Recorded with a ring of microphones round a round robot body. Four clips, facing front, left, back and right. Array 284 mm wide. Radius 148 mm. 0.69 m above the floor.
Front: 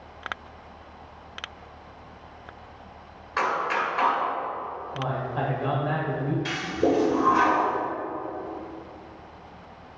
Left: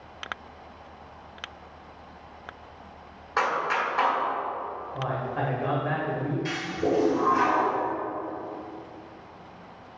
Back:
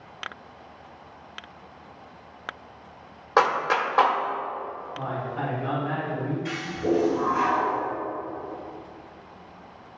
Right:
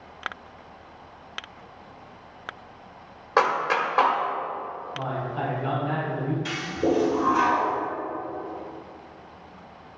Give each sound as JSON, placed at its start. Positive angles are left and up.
{"t": 3.4, "sound": "a clap", "azimuth_deg": -150, "distance_m": 1.4}
{"t": 4.9, "sound": "a man speaking", "azimuth_deg": 45, "distance_m": 3.0}
{"t": 6.5, "sound": "a toilet flushing", "azimuth_deg": -10, "distance_m": 2.5}